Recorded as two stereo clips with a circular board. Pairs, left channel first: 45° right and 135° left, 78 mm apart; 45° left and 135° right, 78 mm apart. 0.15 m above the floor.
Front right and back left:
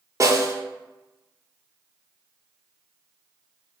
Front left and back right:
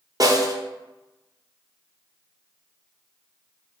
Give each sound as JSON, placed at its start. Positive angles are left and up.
{"t": 0.2, "sound": "a snare drum", "azimuth_deg": -175, "distance_m": 0.6}